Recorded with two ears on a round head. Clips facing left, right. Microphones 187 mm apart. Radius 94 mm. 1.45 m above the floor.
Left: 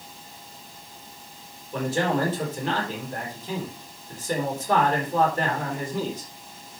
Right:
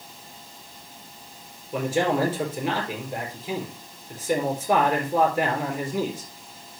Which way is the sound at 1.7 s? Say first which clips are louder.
Right 2 dB; 15° right (ahead or behind).